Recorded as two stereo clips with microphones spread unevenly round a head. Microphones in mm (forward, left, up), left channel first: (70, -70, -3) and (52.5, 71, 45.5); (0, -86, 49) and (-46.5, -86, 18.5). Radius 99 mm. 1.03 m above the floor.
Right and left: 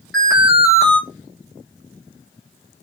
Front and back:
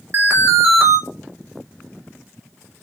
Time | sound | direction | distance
0.1 | an alarm | 165° right | 0.8 m